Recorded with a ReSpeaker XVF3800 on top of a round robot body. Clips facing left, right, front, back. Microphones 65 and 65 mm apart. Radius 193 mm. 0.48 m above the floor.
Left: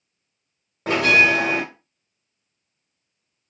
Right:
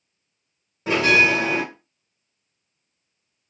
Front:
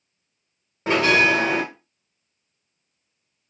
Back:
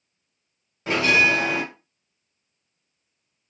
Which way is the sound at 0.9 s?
55° left.